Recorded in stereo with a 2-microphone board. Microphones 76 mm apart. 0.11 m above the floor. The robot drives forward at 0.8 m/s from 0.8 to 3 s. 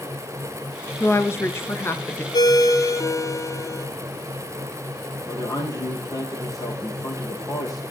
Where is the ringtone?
60° left (ahead or behind), 1.0 m; by 3.9 s 45° left (ahead or behind), 1.3 m.